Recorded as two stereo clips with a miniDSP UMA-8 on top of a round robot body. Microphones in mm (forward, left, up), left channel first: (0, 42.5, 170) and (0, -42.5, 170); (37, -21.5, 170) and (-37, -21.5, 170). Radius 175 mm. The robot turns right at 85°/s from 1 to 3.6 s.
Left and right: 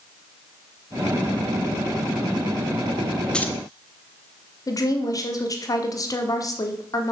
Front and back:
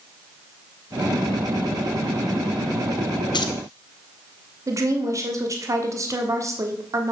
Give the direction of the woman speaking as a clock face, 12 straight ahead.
7 o'clock.